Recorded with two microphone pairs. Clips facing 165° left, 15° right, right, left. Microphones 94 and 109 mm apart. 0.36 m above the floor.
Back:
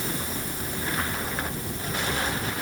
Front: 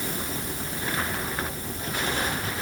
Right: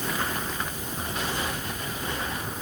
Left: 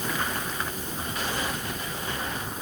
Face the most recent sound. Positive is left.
No sound to turn to.